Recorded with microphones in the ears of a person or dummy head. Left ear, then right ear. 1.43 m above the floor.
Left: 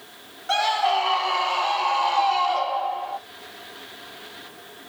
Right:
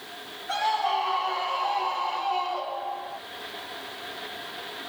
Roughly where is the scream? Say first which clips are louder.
Left 4 dB; left.